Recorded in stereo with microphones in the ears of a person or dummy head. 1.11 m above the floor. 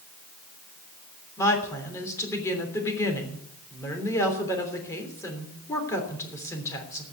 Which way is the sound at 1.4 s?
15° left (ahead or behind).